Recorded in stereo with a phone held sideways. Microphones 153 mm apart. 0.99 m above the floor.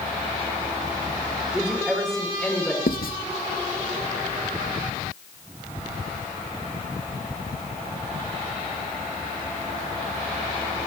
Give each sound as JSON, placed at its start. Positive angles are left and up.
{"t": 1.5, "sound": "a woman speaking", "side_deg": -5, "distance_m": 3.5}
{"t": 2.9, "sound": "writing", "side_deg": 75, "distance_m": 0.7}